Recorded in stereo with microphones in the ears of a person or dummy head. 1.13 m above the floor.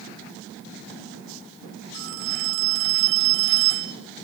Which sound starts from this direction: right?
A phone ringing, at 1.9 s.